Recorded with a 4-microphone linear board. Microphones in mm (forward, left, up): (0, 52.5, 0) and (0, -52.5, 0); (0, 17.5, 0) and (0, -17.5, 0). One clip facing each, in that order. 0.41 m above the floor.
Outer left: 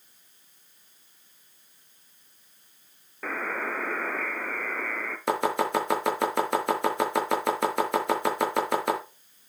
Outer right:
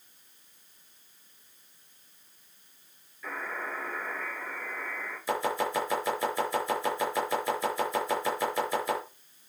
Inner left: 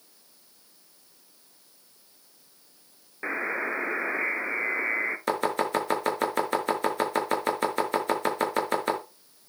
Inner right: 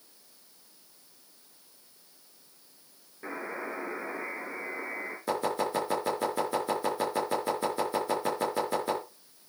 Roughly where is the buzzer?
Left.